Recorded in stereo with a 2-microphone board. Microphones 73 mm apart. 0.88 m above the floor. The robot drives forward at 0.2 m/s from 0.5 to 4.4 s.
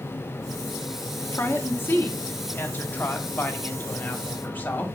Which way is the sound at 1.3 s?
30° left (ahead or behind).